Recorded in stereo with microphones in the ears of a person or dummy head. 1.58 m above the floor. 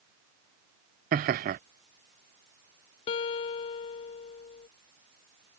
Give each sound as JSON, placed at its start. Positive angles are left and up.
{"t": 1.1, "sound": "laughter", "side_deg": -40}
{"t": 3.1, "sound": "a guitar", "side_deg": 25}